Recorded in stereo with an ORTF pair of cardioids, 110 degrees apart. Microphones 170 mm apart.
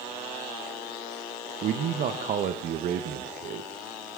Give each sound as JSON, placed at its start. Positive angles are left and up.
{"t": 1.6, "sound": "a man speaking", "azimuth_deg": -55, "distance_m": 1.1}